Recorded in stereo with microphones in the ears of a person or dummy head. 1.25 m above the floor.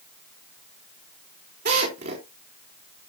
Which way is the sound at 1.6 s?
60° right (ahead or behind).